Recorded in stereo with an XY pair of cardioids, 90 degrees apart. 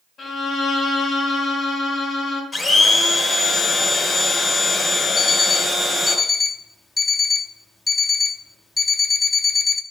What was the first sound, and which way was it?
A violin, 50° left.